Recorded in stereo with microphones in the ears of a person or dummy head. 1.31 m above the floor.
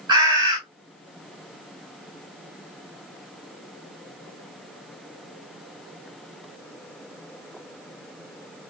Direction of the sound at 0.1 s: 25° right (ahead or behind).